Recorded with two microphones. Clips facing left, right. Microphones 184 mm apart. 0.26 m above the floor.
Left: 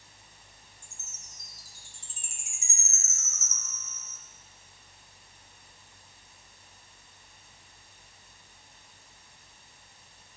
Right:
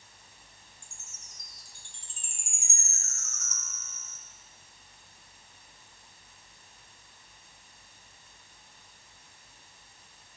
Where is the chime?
5° left (ahead or behind), 1.1 m.